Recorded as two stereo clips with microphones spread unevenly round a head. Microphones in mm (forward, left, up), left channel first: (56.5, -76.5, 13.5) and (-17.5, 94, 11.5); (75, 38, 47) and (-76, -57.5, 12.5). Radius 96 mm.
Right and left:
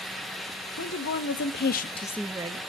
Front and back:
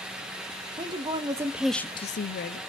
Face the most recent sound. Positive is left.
turn(degrees=60)